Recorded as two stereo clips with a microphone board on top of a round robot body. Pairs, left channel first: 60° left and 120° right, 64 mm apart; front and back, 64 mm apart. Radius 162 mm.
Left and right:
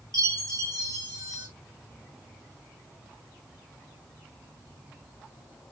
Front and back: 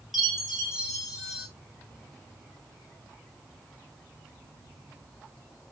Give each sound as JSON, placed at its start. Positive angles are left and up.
{"t": 0.1, "sound": "a chime", "azimuth_deg": -95, "distance_m": 3.5}